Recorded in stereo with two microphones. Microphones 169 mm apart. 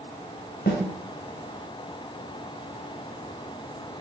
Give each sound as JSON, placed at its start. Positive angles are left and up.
{"t": 0.7, "sound": "a snare drum", "side_deg": 75, "distance_m": 2.0}